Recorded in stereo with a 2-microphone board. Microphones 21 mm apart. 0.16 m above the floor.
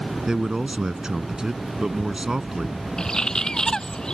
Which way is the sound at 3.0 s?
35° left (ahead or behind).